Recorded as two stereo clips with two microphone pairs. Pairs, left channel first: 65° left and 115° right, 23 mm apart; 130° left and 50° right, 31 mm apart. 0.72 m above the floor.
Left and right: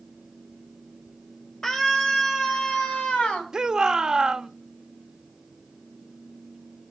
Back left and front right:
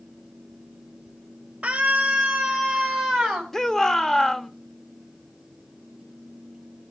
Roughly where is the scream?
Ahead.